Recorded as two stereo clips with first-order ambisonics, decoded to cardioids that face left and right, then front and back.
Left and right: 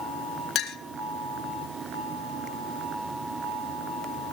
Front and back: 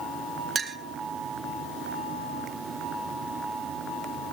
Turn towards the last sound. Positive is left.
turn(degrees=115)